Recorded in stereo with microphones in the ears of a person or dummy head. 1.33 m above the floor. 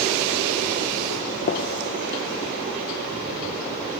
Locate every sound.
1.5 s a gunshot: 50° left (ahead or behind), 0.8 m